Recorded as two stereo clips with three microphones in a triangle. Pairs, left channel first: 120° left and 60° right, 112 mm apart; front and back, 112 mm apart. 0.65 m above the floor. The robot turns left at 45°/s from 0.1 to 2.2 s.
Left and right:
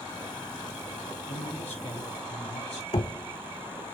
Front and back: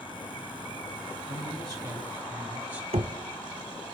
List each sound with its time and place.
1.3 s a man speaking: 145° left, 5.5 m; by 2.8 s 105° left, 5.5 m
2.9 s knocking: 155° left, 1.1 m